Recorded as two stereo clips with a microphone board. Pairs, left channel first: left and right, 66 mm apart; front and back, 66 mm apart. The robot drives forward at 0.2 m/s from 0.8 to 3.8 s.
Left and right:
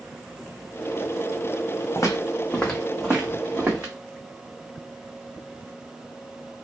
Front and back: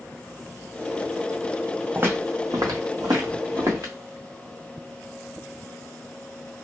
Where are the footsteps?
125° left, 0.8 m; by 3.9 s 145° right, 1.3 m.